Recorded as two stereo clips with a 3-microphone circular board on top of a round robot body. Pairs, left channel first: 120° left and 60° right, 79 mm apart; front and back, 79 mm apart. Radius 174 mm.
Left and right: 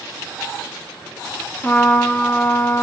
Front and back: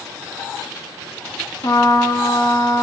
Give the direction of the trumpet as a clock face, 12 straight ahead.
10 o'clock.